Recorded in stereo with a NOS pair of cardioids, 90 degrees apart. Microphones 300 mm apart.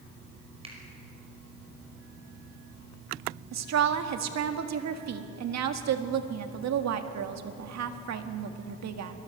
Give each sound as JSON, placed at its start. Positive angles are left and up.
{"t": 0.6, "sound": "a finger snap", "azimuth_deg": -20, "distance_m": 5.5}
{"t": 3.5, "sound": "a woman speaking", "azimuth_deg": -60, "distance_m": 1.7}